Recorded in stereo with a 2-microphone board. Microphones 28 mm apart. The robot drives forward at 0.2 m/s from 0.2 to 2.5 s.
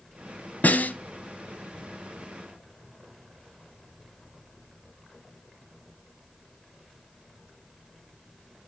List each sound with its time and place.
0.6 s a snare drum: 65° left (ahead or behind), 1.5 m